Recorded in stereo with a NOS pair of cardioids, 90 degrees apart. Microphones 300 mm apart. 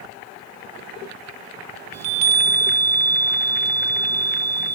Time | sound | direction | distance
1.9 | a chime | 60° right | 1.5 m